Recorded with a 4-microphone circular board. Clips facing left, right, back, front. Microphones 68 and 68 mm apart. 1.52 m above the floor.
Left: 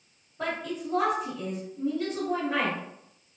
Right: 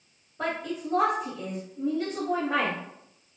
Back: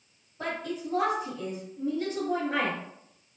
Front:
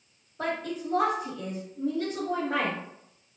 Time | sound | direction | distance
0.4 | a woman speaking | 25° right | 1.7 m